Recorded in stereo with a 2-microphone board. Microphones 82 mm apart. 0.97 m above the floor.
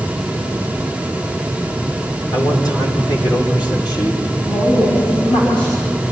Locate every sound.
2.3 s a man speaking: 55° left (ahead or behind), 3.5 m; by 4.2 s 70° left (ahead or behind), 3 m
4.5 s a woman speaking: 80° left, 6.5 m